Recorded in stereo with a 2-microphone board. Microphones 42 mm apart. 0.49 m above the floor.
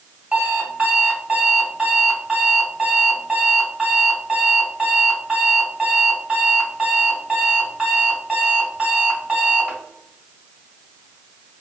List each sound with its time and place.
0.3 s an alarm clock: 30° right (ahead or behind), 1.8 m